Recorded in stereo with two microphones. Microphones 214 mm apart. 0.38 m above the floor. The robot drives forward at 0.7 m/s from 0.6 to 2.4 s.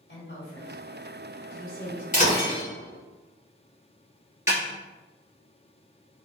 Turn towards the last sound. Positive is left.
turn(degrees=35)  # may be behind; listen again after turning